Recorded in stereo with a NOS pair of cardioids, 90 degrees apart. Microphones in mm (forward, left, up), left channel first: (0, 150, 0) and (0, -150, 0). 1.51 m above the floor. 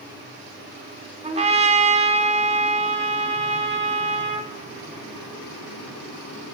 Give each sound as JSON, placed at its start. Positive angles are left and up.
{"t": 1.2, "sound": "a trumpet", "azimuth_deg": -25, "distance_m": 5.0}